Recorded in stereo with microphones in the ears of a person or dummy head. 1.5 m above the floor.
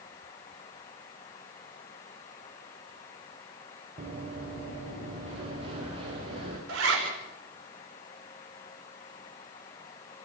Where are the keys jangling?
No keys jangling in this recording.